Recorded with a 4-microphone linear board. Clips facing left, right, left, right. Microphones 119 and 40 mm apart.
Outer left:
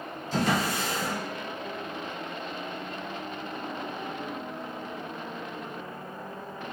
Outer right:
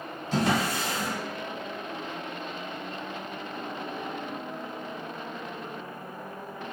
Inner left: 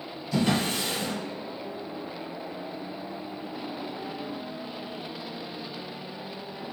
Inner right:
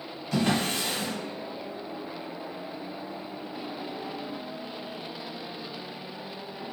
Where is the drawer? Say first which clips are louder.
Outer right 1 dB, inner left 1 dB; 65° right (ahead or behind), 1.1 m.